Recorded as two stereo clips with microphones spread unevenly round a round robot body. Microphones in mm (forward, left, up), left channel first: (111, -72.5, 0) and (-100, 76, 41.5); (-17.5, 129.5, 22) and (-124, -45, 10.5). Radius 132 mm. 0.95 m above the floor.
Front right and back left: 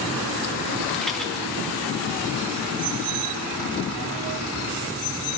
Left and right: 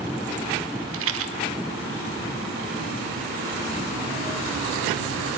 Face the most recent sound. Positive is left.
turn(degrees=-125)